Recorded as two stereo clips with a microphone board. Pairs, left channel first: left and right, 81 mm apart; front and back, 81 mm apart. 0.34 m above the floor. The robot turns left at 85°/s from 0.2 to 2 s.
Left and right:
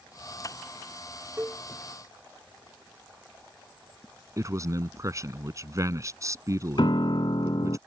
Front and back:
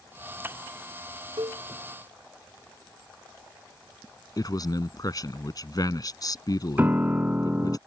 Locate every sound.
1.4 s a cowbell: 160° right; by 1.6 s 175° left
4.4 s a man speaking: 40° right
6.8 s a piano: 110° left